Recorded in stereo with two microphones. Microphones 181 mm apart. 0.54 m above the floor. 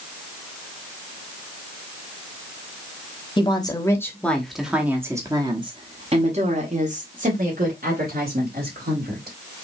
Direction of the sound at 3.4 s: 25° left (ahead or behind).